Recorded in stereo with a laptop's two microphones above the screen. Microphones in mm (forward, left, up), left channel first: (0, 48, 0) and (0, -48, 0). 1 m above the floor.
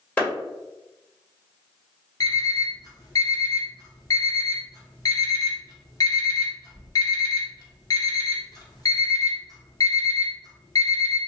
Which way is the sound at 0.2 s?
15° left (ahead or behind).